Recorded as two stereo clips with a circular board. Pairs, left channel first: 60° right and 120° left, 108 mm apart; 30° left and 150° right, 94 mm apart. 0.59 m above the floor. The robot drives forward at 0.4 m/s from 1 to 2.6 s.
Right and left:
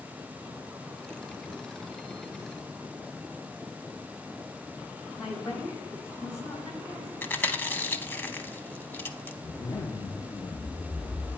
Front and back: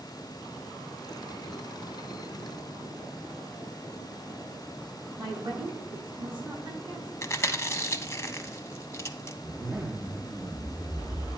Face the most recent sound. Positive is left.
turn(degrees=-80)